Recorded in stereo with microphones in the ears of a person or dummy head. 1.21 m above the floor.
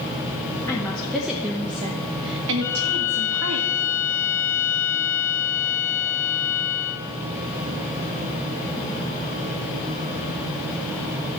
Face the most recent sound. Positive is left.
turn(degrees=10)  # may be behind; listen again after turning